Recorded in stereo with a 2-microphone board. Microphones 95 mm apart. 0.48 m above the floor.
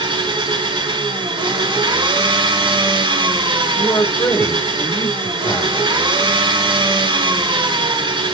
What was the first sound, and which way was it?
An engine running, 60° right (ahead or behind).